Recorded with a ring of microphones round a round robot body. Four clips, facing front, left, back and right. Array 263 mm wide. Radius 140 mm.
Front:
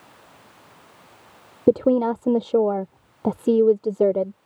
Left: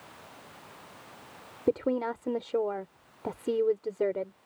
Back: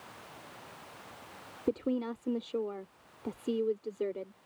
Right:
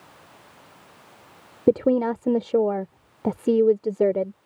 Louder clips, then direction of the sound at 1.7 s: Right 9 dB, front 15 dB; 30° right.